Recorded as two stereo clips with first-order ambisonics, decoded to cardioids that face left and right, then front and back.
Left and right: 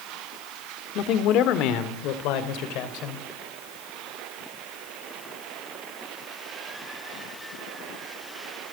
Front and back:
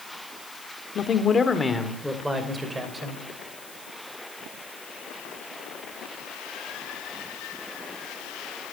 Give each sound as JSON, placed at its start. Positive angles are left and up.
{"t": 0.9, "sound": "a man speaking", "azimuth_deg": 55, "distance_m": 1.8}